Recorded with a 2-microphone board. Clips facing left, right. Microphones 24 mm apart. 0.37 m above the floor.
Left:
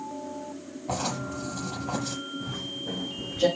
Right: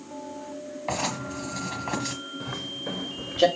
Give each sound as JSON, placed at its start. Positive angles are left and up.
{"t": 0.9, "sound": "writing", "side_deg": -80, "distance_m": 4.5}
{"t": 2.4, "sound": "footsteps", "side_deg": -70, "distance_m": 4.5}